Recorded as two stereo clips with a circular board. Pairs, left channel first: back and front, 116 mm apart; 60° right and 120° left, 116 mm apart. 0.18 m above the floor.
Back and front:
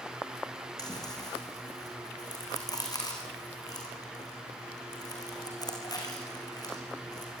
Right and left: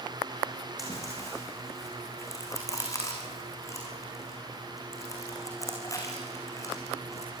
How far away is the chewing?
About 5.5 m.